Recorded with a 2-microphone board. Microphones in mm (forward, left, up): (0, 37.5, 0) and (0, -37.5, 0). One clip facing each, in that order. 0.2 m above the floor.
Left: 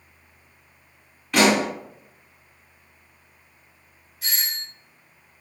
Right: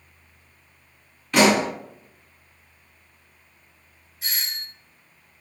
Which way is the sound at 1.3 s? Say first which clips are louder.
Right 1 dB; centre (ahead or behind).